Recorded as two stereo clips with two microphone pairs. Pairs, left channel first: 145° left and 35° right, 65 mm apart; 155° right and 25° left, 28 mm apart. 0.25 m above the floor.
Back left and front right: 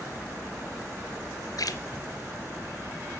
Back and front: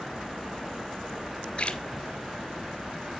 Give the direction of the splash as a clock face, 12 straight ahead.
7 o'clock.